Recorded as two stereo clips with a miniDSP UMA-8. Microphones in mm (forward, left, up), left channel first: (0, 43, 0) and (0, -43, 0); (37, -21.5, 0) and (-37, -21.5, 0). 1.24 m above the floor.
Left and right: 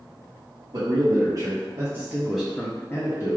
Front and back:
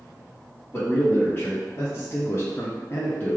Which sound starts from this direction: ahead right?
A man speaking, at 0.7 s.